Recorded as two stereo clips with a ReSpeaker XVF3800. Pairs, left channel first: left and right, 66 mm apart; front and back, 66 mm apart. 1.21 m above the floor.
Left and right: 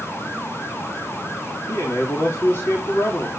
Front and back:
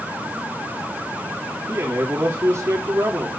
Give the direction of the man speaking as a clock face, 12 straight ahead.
7 o'clock.